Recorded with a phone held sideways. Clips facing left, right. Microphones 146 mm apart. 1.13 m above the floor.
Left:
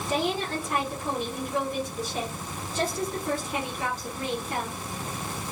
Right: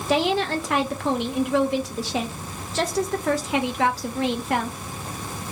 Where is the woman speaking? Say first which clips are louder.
Right 6 dB; 75° right (ahead or behind), 0.5 m.